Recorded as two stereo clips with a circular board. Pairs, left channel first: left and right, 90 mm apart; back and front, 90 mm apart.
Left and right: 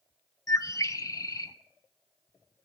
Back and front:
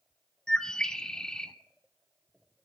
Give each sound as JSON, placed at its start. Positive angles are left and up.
{"t": 0.5, "sound": "a bird", "azimuth_deg": 100, "distance_m": 0.6}